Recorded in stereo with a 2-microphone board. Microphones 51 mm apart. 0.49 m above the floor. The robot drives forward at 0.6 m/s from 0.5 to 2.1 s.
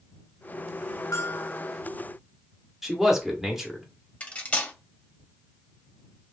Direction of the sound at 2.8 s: 5° right (ahead or behind).